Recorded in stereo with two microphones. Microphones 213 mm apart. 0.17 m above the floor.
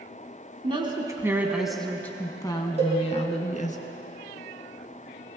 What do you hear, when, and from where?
0.6 s a woman speaking: 25° right (ahead or behind), 1.3 m; by 3.8 s 35° left (ahead or behind), 1.7 m
2.8 s a cowbell: 30° right (ahead or behind), 4.5 m